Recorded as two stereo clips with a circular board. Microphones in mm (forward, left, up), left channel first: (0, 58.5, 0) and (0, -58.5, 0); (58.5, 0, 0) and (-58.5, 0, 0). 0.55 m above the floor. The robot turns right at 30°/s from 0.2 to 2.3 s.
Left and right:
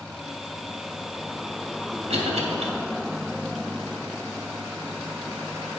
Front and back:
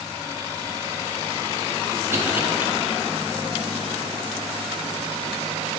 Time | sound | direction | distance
2.1 | a cough | 115° right | 2.5 m